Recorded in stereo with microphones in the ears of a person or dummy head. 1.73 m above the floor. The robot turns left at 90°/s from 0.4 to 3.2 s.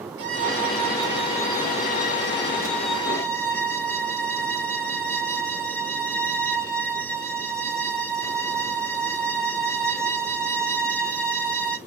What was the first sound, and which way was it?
A violin, 95° right.